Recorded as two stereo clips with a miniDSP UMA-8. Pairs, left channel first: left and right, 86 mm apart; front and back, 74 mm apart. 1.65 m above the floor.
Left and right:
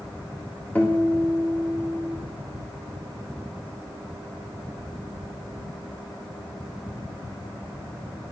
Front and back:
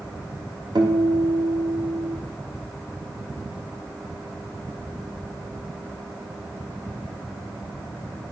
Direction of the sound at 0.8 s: 160° left.